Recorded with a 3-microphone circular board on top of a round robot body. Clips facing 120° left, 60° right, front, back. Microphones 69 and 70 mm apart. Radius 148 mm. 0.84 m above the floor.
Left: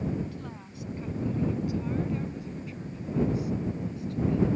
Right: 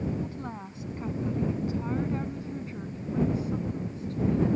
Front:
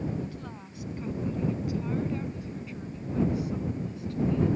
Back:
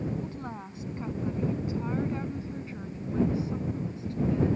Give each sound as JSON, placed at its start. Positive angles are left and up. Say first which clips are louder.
{"t": 0.2, "sound": "a woman speaking", "louder": "right 3 dB, back 2 dB", "azimuth_deg": -120}